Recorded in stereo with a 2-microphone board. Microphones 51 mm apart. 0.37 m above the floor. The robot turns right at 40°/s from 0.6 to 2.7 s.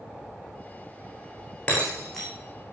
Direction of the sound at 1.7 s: 25° left (ahead or behind).